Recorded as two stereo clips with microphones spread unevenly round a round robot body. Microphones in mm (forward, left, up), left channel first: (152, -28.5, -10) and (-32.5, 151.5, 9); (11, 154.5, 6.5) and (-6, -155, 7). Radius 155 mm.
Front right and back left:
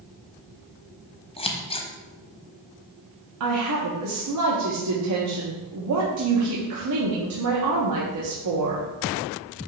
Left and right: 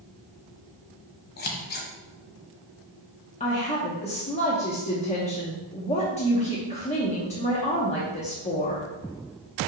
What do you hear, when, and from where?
1.4 s scissors: 25° left, 1.2 m
3.4 s a woman speaking: 155° left, 0.9 m